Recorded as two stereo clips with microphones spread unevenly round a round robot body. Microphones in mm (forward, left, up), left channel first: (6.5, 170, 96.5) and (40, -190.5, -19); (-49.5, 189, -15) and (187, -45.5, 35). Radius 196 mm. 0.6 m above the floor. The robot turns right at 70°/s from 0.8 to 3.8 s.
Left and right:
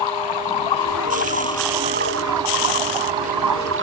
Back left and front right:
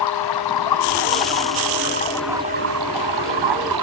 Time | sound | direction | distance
0.0 | running water | 125° left | ?